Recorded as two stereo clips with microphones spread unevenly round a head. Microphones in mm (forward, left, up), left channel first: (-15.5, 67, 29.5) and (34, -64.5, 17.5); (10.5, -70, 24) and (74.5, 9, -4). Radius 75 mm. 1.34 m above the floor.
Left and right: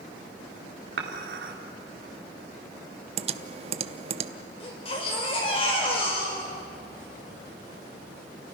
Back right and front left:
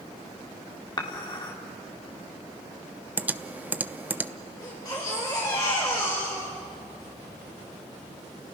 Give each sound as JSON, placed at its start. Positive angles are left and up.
{"t": 1.0, "sound": "dishes clattering", "azimuth_deg": -90, "distance_m": 2.5}
{"t": 3.2, "sound": "typing on a keyboard", "azimuth_deg": -20, "distance_m": 0.8}
{"t": 4.6, "sound": "a baby crying", "azimuth_deg": 165, "distance_m": 4.5}